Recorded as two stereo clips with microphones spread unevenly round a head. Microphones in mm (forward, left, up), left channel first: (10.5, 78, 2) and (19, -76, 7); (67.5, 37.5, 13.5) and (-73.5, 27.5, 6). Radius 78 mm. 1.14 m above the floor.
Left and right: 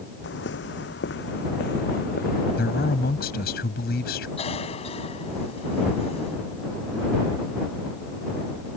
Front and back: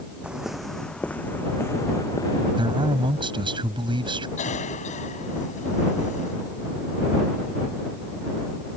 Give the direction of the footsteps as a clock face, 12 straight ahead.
9 o'clock.